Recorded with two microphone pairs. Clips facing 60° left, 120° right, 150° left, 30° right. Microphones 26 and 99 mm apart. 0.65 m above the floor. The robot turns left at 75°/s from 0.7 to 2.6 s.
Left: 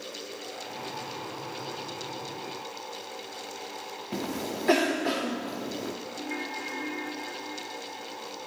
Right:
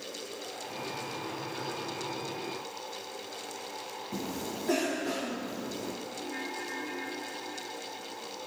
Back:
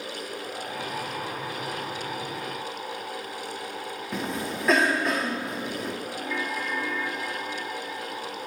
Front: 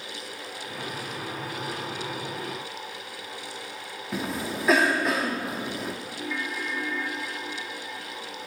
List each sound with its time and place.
4.1 s a cough: 55° left, 1.0 m
6.2 s a ringtone: 55° left, 2.5 m